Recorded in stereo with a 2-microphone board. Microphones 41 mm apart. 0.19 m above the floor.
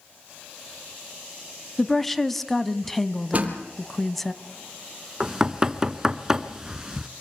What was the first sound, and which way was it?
A woman speaking, 5° left (ahead or behind).